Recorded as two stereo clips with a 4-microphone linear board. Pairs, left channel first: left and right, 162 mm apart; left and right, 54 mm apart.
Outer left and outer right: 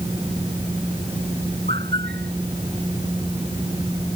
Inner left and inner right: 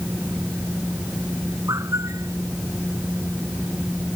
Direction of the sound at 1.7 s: 85° right.